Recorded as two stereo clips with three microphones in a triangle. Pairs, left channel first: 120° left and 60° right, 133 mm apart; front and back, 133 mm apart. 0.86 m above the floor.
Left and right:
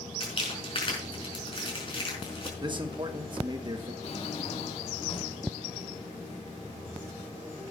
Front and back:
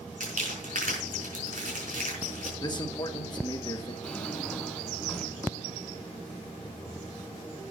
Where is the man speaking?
35° right, 1.3 m.